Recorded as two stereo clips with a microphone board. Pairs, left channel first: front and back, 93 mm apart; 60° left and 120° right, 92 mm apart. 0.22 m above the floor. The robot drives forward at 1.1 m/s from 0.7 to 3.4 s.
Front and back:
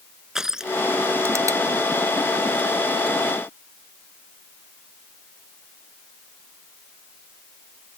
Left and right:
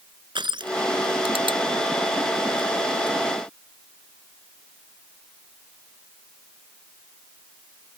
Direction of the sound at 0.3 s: 95° right.